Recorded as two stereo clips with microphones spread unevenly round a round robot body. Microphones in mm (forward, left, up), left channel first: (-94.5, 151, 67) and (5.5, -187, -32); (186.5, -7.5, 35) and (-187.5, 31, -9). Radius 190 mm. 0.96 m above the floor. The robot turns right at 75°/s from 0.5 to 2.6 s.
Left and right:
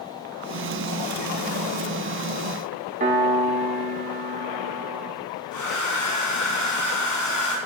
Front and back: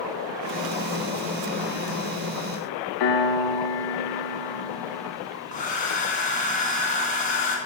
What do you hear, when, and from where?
3.0 s a piano: 25° right, 1.3 m
5.5 s a hair dryer: 65° left, 3.5 m